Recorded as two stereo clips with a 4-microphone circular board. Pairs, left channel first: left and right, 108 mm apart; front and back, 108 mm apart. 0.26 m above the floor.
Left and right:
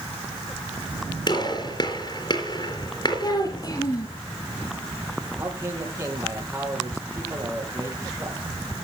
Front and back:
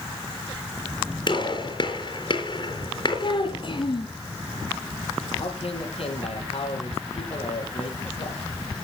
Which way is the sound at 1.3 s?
45° left.